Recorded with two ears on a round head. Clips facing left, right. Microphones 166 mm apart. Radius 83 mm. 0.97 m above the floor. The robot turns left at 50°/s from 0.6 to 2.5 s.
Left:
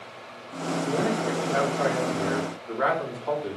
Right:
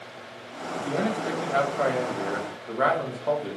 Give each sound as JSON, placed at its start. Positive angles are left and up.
{"t": 0.8, "sound": "a man speaking", "azimuth_deg": -5, "distance_m": 1.3}